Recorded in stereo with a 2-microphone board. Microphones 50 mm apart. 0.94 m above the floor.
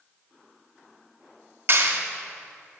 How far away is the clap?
About 1.8 m.